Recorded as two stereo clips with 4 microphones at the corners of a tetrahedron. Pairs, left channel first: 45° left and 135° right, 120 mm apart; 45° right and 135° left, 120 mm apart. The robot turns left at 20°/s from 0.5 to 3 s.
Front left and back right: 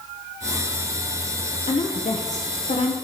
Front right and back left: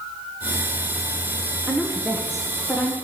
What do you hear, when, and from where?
1.7 s a woman speaking: 60° left, 0.8 m; by 3.0 s 35° left, 0.8 m